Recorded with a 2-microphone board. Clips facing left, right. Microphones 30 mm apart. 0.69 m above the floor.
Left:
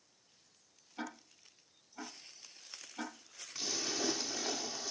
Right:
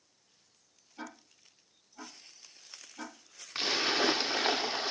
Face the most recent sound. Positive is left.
turn(degrees=-55)  # may be behind; listen again after turning